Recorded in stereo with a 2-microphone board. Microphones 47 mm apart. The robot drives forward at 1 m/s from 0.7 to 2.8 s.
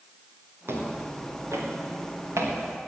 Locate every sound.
0.7 s footsteps: 60° right (ahead or behind), 4.5 m; by 2.5 s 90° right, 5 m